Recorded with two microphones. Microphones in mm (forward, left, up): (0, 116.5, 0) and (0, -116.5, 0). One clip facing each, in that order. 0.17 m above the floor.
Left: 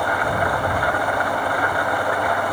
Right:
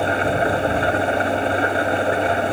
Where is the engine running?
25° right (ahead or behind).